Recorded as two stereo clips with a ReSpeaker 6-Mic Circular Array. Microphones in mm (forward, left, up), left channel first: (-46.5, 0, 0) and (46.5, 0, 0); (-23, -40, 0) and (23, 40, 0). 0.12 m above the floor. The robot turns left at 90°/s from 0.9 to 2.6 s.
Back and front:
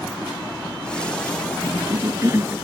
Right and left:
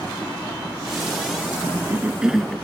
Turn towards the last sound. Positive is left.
turn(degrees=-45)